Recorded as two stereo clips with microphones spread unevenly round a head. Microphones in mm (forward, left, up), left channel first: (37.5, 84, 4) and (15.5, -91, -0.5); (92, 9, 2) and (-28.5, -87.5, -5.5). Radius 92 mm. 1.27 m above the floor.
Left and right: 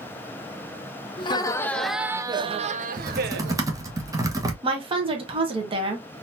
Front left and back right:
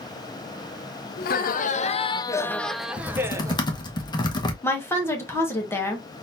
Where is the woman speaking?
35° right, 1.3 m.